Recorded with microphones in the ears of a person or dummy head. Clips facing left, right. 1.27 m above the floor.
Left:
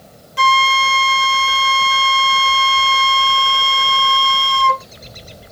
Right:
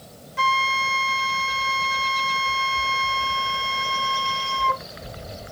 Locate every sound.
0.4 s a flute: 45° left (ahead or behind)